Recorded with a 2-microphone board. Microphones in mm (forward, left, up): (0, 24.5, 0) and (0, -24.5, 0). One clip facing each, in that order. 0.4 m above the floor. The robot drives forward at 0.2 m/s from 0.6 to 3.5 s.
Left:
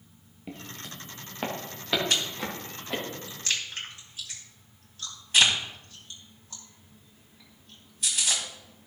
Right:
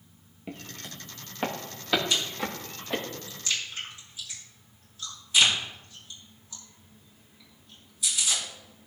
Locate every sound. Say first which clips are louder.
0.5 s footsteps: even; 10° right (ahead or behind), 2.5 m; by 3.0 s 5° left (ahead or behind), 5 m
2.1 s chewing: even; 60° left (ahead or behind), 2.5 m; by 8.4 s 55° left (ahead or behind), 2.5 m